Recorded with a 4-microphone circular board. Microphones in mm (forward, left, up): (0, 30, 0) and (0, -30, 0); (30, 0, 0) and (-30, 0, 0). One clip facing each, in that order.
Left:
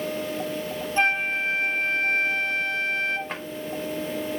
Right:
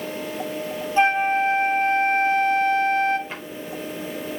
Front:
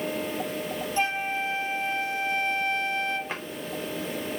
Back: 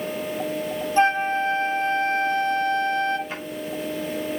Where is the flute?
170° right, 1.4 m.